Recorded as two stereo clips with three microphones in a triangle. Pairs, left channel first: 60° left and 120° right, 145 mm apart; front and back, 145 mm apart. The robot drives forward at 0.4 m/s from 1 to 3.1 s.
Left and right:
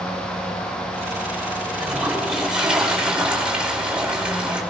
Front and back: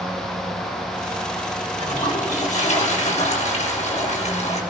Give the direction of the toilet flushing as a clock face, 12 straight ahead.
1 o'clock.